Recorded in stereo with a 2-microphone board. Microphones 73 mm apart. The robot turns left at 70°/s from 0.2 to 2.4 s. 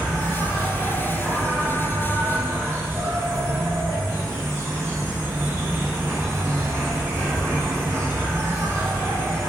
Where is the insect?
85° left, 1.2 m; by 9.5 s 65° right, 1.2 m.